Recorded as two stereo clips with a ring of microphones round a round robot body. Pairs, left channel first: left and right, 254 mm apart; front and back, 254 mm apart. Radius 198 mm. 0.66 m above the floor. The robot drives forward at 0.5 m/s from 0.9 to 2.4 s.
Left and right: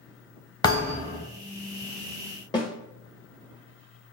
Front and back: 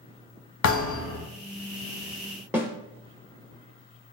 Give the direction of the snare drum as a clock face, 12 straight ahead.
8 o'clock.